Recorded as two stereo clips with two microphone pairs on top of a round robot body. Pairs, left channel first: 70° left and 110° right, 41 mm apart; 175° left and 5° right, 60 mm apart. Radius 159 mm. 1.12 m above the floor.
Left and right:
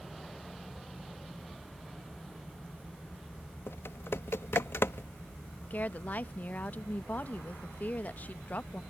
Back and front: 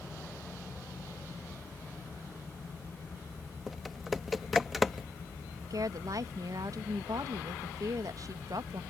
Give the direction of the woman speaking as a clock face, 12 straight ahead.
11 o'clock.